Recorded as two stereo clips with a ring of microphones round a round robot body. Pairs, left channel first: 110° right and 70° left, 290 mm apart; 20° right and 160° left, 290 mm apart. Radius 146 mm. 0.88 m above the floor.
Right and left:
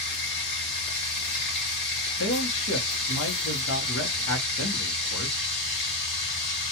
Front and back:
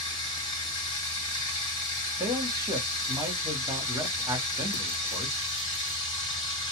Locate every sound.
0.0 s running water: 95° right, 1.7 m
2.2 s a man speaking: 125° right, 1.1 m